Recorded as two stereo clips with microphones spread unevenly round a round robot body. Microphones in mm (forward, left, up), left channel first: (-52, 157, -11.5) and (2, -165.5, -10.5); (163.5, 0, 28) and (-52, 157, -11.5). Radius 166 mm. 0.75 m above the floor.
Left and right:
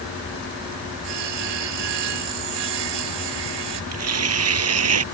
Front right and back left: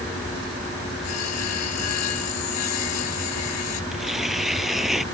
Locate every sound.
1.0 s sawing: 80° right
3.9 s tearing paper: 125° right